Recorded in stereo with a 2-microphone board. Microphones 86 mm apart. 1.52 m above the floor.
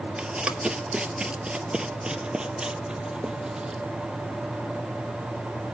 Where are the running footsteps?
10° right (ahead or behind), 1.6 m; by 3.8 s 5° right (ahead or behind), 2.5 m.